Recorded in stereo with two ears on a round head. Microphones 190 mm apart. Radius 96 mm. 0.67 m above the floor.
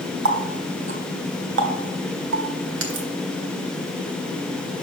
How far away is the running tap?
About 1.6 m.